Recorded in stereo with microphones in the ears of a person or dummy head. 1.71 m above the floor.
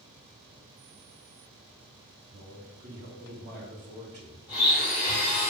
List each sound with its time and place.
2.3 s a man speaking: 40° right (ahead or behind), 0.8 m
4.5 s a blender: 20° left (ahead or behind), 1.5 m